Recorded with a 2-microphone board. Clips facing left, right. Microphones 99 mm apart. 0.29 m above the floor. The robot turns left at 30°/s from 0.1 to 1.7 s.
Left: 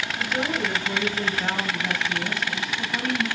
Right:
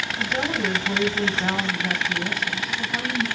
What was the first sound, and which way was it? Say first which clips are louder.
A woman speaking: right 1 dB; 120° right.